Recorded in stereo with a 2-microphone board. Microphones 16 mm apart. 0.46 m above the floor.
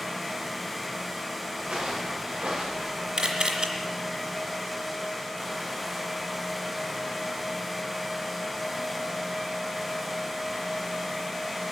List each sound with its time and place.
1.6 s footsteps: 85° right, 9 m
3.2 s a camera shutter: 70° right (ahead or behind), 2.5 m